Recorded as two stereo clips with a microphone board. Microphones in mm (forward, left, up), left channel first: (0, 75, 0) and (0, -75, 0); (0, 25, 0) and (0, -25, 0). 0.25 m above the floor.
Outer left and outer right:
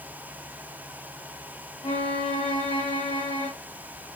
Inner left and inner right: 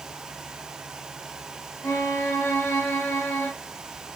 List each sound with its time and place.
1.8 s a violin: 55° left (ahead or behind), 3 m